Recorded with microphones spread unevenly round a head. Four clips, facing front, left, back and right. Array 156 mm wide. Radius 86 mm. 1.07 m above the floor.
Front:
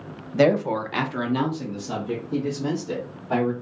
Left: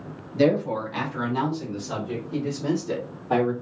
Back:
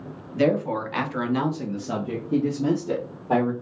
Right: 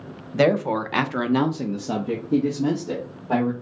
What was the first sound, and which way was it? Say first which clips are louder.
A woman speaking: right 2 dB, front 3 dB; 45° right.